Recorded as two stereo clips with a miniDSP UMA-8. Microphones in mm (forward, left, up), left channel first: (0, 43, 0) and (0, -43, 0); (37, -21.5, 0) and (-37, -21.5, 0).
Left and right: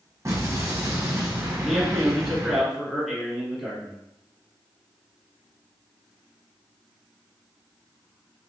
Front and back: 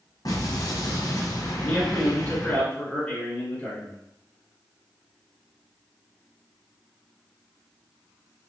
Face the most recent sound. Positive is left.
turn(degrees=0)